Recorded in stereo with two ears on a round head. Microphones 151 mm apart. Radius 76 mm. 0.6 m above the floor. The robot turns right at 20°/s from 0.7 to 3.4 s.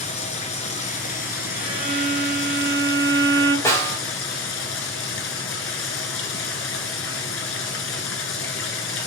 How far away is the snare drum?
About 3 m.